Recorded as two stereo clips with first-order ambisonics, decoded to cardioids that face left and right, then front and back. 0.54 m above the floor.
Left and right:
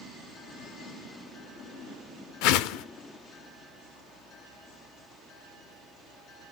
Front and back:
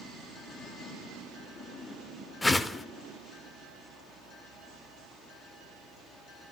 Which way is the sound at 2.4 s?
80° left.